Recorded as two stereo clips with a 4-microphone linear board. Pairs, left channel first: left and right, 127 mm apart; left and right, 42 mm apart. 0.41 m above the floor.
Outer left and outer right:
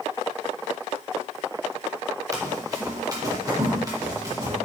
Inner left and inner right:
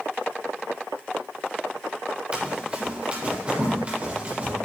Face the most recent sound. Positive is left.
turn(degrees=-30)  # may be behind; listen again after turning